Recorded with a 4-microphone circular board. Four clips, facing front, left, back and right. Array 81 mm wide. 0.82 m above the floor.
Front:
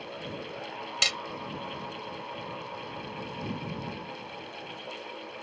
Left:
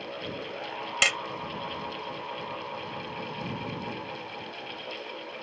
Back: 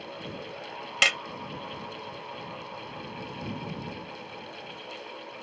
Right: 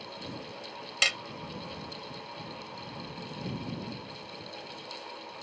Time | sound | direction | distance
1.0 | hammering | 150° left | ?